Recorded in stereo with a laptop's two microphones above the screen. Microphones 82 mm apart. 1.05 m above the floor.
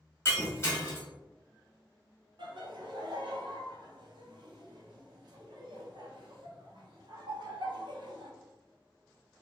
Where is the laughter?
65° right (ahead or behind), 0.9 m.